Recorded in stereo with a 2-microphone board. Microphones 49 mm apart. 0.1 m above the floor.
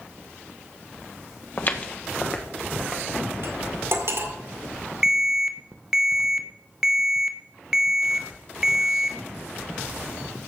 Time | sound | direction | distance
1.6 | footsteps | 45° left (ahead or behind) | 1.3 m
3.4 | cutlery clinking | 60° right (ahead or behind) | 1.7 m
5.0 | an alarm | 15° right (ahead or behind) | 1.1 m